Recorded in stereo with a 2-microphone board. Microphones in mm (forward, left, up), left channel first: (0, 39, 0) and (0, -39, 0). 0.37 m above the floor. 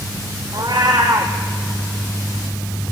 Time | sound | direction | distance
0.5 | a cat meowing | 55° right (ahead or behind) | 2.5 m